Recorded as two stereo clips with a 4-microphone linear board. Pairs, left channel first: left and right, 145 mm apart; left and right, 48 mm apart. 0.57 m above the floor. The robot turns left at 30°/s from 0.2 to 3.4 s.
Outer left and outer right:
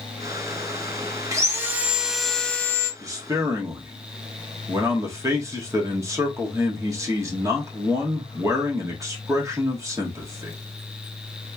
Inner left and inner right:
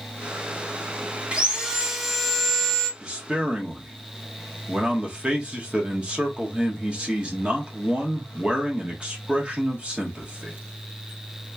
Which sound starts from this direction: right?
A man speaking, at 3.0 s.